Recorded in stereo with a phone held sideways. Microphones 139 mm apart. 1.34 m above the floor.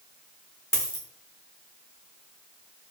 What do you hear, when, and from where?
0.7 s a dropped coin: 20° left (ahead or behind), 1.0 m